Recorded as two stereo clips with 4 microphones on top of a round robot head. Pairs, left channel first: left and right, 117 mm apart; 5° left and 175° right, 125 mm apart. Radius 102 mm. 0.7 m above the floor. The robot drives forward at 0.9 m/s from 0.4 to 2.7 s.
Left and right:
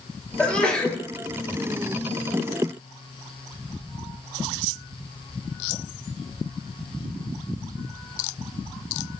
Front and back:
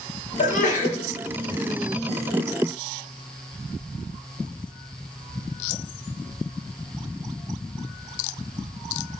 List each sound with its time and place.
0.4 s a sneeze: 10° left, 3 m